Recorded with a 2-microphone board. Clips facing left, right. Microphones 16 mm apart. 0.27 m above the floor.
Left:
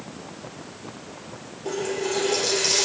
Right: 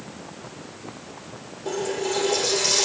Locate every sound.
1.6 s a running tap: 15° left (ahead or behind), 3.5 m